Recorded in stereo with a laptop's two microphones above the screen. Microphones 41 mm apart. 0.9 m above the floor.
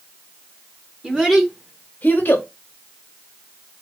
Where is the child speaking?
20° right (ahead or behind), 0.8 m; by 2.5 s 65° left (ahead or behind), 0.7 m.